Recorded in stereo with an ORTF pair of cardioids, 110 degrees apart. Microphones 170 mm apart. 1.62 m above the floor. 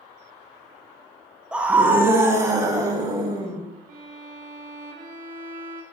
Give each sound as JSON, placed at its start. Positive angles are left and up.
{"t": 1.5, "sound": "a scream", "azimuth_deg": -5, "distance_m": 1.0}
{"t": 3.9, "sound": "a violin", "azimuth_deg": -50, "distance_m": 1.4}